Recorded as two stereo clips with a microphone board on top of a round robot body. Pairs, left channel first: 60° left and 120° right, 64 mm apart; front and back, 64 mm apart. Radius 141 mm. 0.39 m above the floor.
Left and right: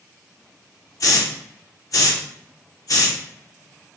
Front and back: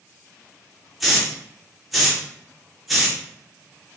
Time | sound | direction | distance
1.0 | a hiss | 90° left | 0.7 m